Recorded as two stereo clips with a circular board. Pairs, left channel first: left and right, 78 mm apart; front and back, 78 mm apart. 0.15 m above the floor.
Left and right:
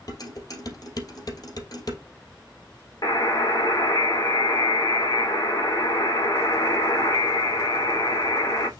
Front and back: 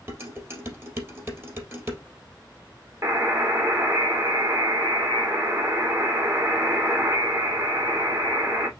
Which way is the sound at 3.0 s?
130° left.